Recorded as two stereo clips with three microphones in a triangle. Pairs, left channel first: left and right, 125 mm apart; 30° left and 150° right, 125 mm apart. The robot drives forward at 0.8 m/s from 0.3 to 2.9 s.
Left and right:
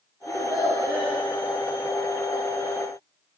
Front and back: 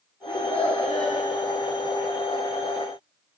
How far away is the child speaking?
About 5.5 m.